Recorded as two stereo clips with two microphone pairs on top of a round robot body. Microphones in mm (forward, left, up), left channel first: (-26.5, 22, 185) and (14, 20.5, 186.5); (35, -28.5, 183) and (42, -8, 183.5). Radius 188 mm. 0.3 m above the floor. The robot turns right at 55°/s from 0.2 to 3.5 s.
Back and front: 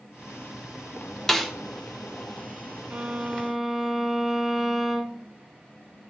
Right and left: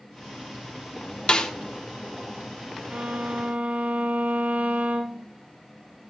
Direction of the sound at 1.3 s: 110° right.